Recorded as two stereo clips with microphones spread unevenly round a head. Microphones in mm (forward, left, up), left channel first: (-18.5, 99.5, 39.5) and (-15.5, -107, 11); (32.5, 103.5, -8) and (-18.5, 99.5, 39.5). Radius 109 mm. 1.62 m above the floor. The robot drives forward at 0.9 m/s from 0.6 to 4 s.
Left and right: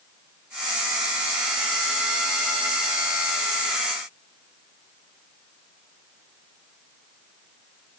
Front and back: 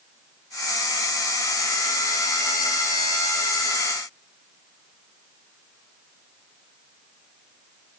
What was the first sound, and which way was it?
Only background noise.